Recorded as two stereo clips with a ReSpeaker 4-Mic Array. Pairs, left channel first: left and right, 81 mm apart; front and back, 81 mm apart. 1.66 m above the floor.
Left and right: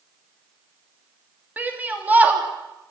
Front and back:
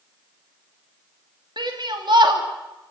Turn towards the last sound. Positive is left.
turn(degrees=-160)